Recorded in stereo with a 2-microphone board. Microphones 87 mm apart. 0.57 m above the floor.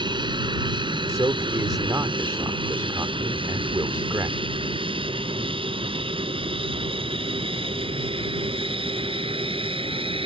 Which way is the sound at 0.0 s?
60° right (ahead or behind).